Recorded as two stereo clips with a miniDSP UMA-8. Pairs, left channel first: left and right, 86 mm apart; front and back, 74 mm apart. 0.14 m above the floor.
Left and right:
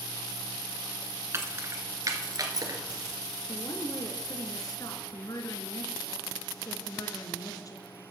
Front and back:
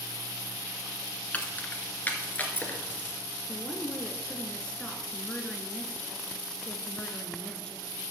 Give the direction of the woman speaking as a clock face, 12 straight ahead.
10 o'clock.